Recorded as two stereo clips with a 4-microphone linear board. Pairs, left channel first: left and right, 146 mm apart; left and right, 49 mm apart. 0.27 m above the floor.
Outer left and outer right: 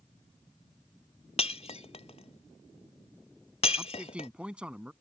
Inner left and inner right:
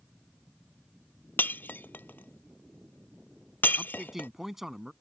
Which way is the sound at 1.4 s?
50° left (ahead or behind).